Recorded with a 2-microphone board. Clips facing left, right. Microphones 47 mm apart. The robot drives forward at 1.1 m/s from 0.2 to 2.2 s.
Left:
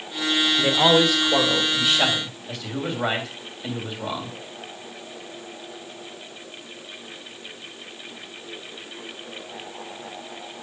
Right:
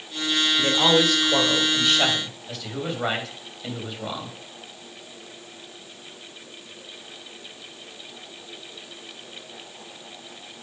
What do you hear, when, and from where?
0.6 s a man speaking: 10° left (ahead or behind), 2.0 m; by 4.3 s 5° left (ahead or behind), 3.5 m